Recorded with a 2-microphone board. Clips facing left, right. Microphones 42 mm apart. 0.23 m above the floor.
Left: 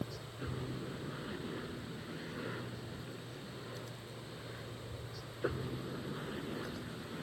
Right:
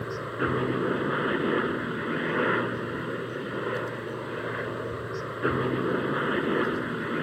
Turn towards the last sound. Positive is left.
turn(degrees=-60)  # may be behind; listen again after turning